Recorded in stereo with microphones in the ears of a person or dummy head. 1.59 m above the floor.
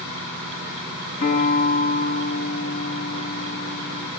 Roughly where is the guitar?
Left.